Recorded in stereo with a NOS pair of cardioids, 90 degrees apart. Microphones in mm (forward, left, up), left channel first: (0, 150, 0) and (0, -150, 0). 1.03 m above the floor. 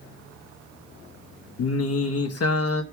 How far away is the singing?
About 1.0 m.